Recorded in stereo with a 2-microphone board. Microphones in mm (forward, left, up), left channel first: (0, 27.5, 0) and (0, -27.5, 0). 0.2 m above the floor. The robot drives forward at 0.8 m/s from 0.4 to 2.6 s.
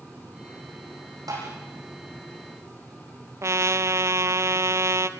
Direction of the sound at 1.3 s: 85° right.